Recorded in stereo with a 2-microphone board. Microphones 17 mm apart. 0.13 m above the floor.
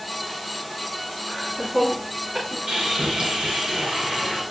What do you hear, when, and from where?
1.3 s laughter: 65° right (ahead or behind), 8 m; by 2.6 s 60° right (ahead or behind), 7 m
2.7 s sawing: 55° right (ahead or behind), 8 m